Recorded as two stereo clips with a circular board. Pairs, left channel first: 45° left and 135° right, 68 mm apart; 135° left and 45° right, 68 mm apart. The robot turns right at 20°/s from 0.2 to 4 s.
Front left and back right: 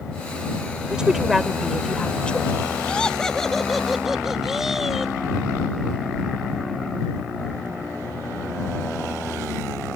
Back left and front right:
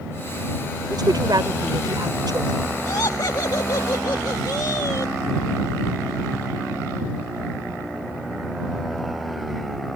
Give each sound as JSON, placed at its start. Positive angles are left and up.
{"t": 0.9, "sound": "a woman speaking", "azimuth_deg": -60}
{"t": 2.9, "sound": "laughter", "azimuth_deg": 115}